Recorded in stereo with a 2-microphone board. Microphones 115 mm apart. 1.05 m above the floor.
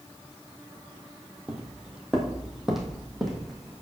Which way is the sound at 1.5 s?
10° right (ahead or behind).